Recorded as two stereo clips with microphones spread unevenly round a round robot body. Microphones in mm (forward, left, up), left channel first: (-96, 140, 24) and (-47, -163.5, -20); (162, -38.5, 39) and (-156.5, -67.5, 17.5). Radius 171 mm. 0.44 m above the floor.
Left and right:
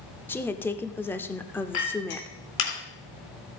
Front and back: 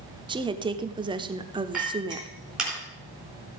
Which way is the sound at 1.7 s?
100° left.